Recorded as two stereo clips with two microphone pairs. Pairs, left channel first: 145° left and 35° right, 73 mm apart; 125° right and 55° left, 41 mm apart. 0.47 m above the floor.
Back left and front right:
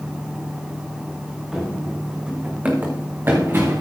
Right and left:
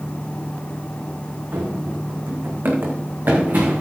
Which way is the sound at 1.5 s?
50° left.